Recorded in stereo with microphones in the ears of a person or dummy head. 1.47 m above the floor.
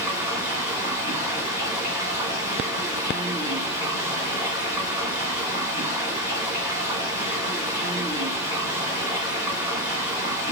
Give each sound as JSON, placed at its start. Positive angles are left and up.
{"t": 0.0, "sound": "running water", "side_deg": -10, "distance_m": 1.7}